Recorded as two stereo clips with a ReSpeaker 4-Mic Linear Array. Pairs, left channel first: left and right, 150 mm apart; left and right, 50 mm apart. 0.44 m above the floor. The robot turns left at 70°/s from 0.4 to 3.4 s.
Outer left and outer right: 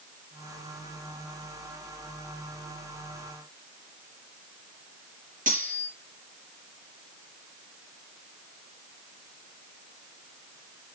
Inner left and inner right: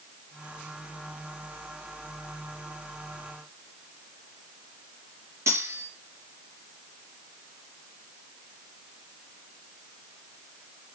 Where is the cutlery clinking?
60° right (ahead or behind), 4 m.